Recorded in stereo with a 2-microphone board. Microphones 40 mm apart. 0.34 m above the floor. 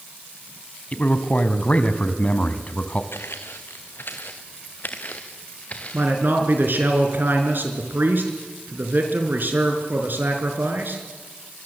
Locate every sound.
0.9 s a man speaking: 35° left (ahead or behind), 2 m
3.1 s footsteps: 75° left (ahead or behind), 1.9 m; by 6.1 s 30° left (ahead or behind), 3 m
5.9 s a man speaking: 55° right (ahead or behind), 4.5 m